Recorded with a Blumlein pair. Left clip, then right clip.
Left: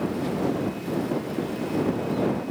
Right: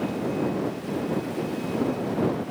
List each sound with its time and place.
Only background noise.